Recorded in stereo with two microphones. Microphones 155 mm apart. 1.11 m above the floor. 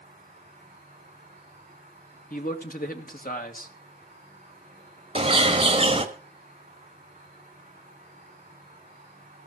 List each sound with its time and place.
0.0 s an insect: 45° right (ahead or behind), 7 m
2.3 s a man speaking: 65° left (ahead or behind), 1.9 m
5.2 s a bird: 35° right (ahead or behind), 1.6 m